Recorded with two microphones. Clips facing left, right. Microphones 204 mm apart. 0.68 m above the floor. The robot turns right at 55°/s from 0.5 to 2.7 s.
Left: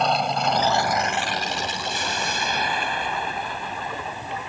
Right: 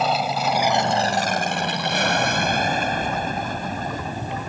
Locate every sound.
0.0 s an aircraft: 5° right (ahead or behind); by 4.5 s 45° right (ahead or behind)